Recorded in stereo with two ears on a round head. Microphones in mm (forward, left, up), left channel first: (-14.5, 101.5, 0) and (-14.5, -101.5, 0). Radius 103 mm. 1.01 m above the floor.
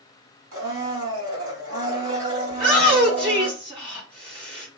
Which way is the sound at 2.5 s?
25° right (ahead or behind).